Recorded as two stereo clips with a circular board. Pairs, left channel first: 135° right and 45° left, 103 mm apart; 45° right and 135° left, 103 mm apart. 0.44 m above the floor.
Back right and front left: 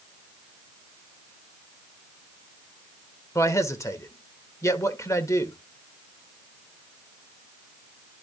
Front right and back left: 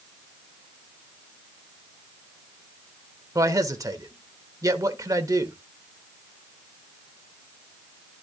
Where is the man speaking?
175° left, 1.3 m.